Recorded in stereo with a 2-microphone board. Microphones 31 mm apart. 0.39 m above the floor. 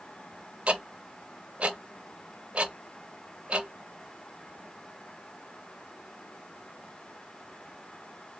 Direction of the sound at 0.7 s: 40° right (ahead or behind).